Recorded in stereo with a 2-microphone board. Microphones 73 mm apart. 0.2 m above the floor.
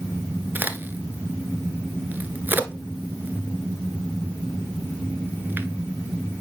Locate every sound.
0.6 s a crack: 25° right (ahead or behind), 0.7 m